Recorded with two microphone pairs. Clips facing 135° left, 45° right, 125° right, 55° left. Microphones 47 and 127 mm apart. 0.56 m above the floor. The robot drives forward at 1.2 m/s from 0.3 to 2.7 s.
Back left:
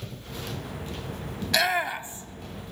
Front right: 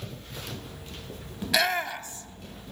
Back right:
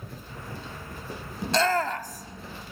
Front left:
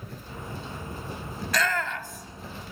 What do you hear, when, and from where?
1.4 s a shout: 105° right, 0.6 m; by 2.5 s 170° right, 1.4 m